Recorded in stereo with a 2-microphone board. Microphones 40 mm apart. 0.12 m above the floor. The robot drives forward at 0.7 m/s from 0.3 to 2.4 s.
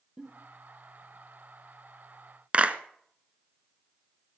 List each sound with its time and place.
0.2 s a giggle: 20° right (ahead or behind), 4 m
2.5 s a clap: 35° right (ahead or behind), 1.1 m